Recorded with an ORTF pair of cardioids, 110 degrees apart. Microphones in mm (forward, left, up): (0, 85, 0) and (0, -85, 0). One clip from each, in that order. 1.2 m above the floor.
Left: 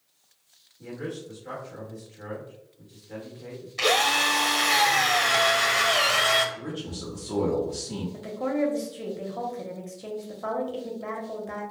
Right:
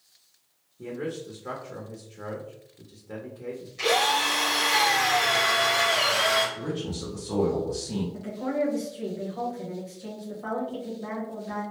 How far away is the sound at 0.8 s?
About 0.9 m.